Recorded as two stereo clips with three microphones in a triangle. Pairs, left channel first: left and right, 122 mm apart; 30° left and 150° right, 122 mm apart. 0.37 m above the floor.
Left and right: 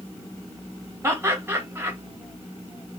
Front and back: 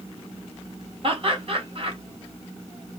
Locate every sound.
1.0 s laughter: 155° right, 2 m